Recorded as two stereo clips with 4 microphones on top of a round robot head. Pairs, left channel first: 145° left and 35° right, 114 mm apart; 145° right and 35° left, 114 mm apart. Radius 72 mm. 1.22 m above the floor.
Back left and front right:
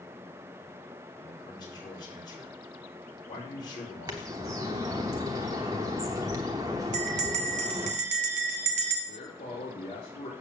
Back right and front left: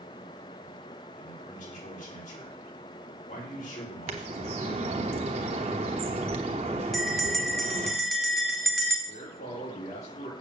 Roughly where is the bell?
Ahead right.